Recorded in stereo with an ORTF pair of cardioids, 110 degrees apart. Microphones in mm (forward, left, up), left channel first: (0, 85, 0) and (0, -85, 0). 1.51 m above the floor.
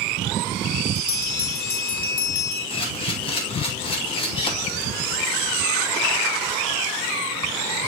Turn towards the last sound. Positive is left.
turn(degrees=30)